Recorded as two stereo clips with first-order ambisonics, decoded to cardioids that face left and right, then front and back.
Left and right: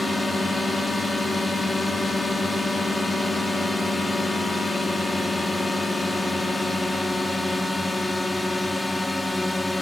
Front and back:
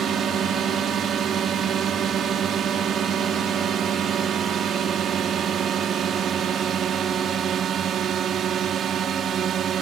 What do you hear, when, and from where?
0.0 s a drone: 170° left